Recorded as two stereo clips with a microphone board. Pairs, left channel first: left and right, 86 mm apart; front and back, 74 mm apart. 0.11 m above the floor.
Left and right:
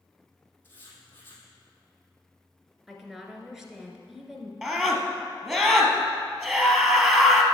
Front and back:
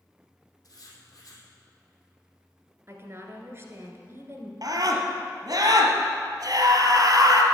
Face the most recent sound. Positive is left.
turn(degrees=-165)